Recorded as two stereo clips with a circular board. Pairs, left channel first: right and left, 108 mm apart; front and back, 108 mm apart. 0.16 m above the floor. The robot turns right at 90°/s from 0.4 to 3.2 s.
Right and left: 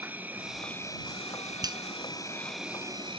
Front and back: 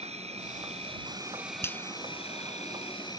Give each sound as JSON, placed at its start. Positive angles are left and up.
{"t": 0.0, "sound": "an insect", "azimuth_deg": 165}
{"t": 1.6, "sound": "a finger snap", "azimuth_deg": 55}